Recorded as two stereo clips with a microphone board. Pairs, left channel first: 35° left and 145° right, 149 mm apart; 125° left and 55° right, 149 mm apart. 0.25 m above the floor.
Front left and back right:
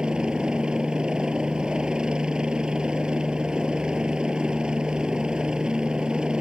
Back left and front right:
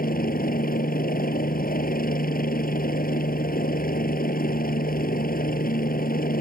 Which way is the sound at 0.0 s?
130° left.